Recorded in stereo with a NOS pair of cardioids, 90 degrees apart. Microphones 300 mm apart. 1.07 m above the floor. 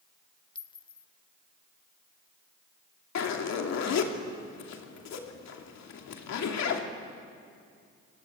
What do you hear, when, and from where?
0.6 s a clink: 15° left, 1.2 m
3.1 s a zipper: 65° left, 2.5 m